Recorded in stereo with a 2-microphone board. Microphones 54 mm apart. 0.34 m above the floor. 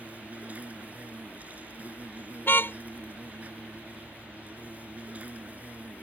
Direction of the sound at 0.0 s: 30° right (ahead or behind).